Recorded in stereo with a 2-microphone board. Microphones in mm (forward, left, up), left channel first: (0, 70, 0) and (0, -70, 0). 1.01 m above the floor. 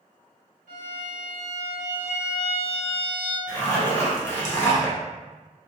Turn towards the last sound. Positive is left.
turn(degrees=20)  # may be behind; listen again after turning